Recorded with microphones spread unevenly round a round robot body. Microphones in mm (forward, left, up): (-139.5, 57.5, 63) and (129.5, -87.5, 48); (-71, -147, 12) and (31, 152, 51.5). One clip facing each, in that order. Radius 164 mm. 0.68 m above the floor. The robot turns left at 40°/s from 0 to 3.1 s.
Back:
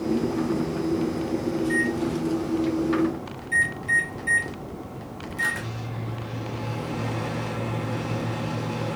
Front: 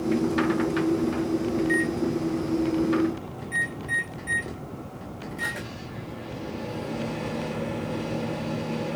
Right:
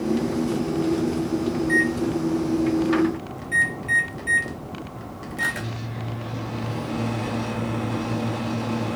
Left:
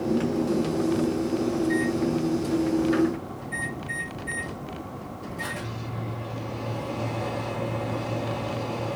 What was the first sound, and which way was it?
A microwave, 75° right.